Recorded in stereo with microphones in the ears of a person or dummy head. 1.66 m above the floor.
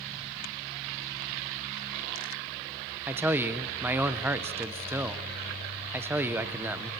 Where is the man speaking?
10° right (ahead or behind), 0.9 m.